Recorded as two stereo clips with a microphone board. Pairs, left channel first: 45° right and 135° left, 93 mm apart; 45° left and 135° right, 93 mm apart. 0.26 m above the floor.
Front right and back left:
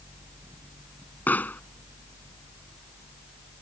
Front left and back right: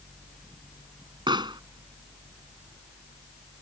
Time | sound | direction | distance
1.3 | a pop | 115° right | ?